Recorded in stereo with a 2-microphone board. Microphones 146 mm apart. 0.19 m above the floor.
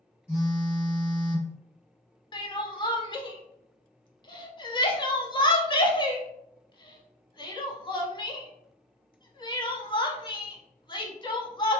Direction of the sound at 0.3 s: 20° left (ahead or behind).